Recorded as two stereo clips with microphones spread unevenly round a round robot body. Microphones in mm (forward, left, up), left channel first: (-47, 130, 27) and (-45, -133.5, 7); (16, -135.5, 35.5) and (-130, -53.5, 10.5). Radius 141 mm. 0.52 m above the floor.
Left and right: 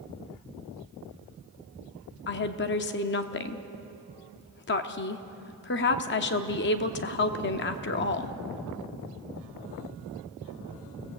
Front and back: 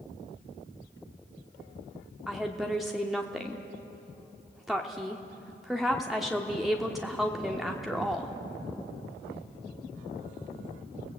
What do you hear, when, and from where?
2.3 s a woman speaking: 75° left, 0.9 m